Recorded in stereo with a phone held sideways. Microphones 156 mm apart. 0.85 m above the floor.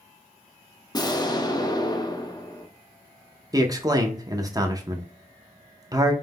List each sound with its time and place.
0.9 s an explosion: 25° left (ahead or behind), 0.6 m
3.5 s a man speaking: 25° right (ahead or behind), 0.6 m